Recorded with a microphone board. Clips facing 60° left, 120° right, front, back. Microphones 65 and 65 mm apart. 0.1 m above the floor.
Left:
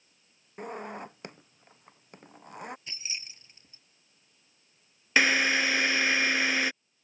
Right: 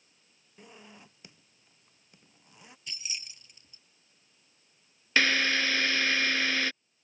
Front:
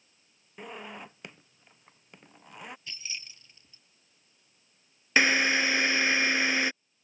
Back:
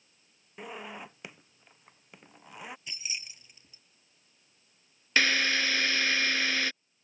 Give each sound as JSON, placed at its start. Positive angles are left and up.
{"t": 0.6, "sound": "a zipper", "azimuth_deg": 95}
{"t": 2.9, "sound": "keys jangling", "azimuth_deg": 115}
{"t": 5.2, "sound": "a drill", "azimuth_deg": 15}